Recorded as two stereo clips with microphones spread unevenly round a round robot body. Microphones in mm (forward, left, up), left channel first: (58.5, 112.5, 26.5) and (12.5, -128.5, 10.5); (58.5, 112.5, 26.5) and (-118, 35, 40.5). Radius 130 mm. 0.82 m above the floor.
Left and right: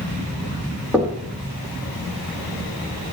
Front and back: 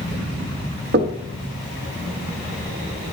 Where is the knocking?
175° left, 1.1 m.